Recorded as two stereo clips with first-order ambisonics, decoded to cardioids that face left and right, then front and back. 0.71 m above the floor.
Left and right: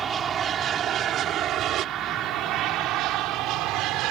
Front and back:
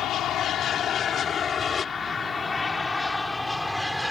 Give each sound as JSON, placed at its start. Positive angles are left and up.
{"t": 0.0, "sound": "an aircraft", "azimuth_deg": -35}